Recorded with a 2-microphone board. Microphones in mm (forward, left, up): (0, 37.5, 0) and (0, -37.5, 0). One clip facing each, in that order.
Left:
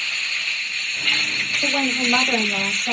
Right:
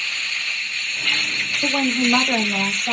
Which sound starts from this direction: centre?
A woman speaking, at 1.6 s.